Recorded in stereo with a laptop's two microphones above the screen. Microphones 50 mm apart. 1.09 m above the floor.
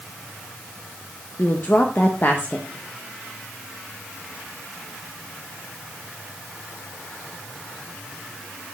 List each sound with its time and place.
1.4 s a woman speaking: 40° left (ahead or behind), 0.7 m